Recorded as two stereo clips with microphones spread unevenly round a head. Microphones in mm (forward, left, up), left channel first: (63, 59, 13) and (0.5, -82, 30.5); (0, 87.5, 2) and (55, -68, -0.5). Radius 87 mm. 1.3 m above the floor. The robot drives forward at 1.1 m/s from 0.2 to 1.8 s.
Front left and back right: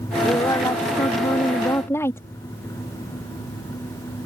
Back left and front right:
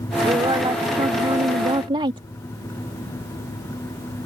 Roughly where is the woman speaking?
Ahead.